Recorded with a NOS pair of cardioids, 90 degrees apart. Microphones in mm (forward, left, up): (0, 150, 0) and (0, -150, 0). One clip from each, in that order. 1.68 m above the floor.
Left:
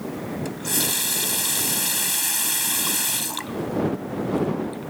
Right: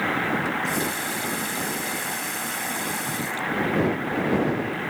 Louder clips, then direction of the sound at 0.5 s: Right 2 dB; 70° left.